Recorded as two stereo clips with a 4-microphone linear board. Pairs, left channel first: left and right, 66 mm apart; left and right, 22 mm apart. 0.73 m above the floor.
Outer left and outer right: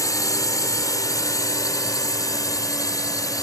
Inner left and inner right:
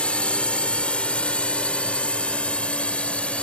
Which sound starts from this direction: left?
A drone, at 0.0 s.